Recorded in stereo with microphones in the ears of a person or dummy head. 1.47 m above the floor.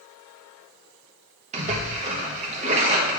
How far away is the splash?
About 1.3 m.